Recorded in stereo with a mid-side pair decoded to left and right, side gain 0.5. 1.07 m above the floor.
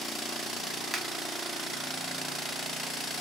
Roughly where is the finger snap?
Ahead.